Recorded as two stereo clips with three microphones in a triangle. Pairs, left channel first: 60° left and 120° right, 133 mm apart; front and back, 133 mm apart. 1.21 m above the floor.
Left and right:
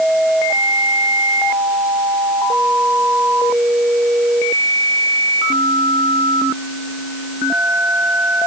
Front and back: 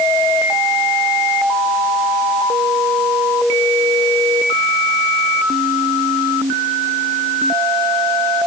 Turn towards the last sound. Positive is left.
No sound to turn to.